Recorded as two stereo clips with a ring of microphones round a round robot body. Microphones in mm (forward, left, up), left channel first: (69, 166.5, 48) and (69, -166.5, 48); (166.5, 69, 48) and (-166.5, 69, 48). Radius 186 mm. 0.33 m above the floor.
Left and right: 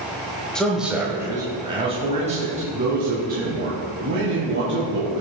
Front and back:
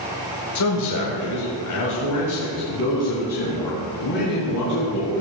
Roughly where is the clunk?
No clunk in this recording.